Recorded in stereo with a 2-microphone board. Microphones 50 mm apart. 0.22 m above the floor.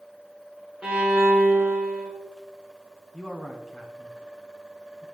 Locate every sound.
0.8 s a violin: 20° right (ahead or behind), 2.5 m
3.1 s a man speaking: 10° right (ahead or behind), 1.9 m